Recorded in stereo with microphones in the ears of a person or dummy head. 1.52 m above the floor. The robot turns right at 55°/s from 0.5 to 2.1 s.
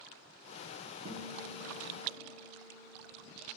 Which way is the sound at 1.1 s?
70° right.